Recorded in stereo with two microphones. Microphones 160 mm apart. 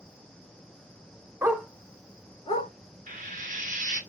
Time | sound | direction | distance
1.4 | a dog barking | 15° right (ahead or behind) | 0.5 m
3.1 | frying | 55° right (ahead or behind) | 1.0 m